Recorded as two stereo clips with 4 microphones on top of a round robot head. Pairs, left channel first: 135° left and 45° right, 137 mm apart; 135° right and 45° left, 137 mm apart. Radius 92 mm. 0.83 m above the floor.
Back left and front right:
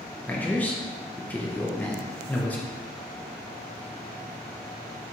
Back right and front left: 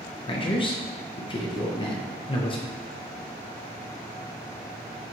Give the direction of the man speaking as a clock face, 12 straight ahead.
5 o'clock.